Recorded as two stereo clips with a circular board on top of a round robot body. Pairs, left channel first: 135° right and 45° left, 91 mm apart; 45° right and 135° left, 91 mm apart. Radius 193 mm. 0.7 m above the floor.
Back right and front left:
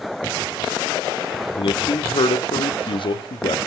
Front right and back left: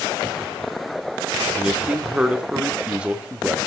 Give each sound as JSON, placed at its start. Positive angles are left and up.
{"t": 1.6, "sound": "a man speaking", "azimuth_deg": -150, "distance_m": 1.9}